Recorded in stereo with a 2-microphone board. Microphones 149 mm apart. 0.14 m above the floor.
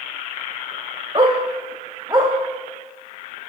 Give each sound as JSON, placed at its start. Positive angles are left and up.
{"t": 1.1, "sound": "a dog barking", "side_deg": -35, "distance_m": 3.5}